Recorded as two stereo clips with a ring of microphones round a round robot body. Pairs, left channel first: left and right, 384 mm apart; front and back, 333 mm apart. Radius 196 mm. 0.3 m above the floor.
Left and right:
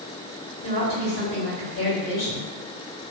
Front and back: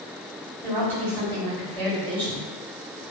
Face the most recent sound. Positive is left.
turn(degrees=80)